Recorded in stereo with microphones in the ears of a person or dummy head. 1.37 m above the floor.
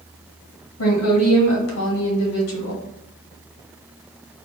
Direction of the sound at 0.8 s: 75° left (ahead or behind).